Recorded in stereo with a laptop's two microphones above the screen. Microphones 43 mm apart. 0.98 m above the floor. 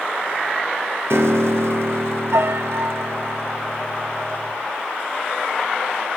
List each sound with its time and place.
1.1 s a piano: 75° right (ahead or behind), 0.8 m